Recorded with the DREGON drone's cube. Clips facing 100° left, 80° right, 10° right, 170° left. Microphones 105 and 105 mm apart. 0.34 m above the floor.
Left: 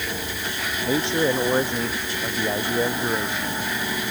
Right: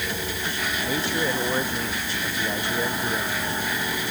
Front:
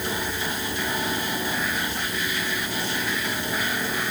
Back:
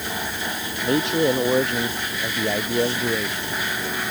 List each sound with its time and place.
0.8 s a man speaking: 170° left